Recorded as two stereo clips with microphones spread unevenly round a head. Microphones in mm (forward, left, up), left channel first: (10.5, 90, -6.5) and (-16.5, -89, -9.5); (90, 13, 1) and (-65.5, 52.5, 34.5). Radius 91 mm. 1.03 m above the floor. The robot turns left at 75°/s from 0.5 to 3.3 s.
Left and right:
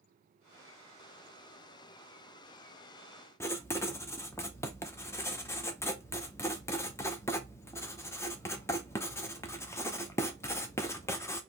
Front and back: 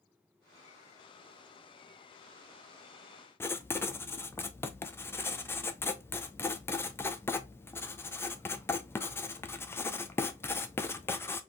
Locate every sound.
3.4 s writing: 15° left, 0.6 m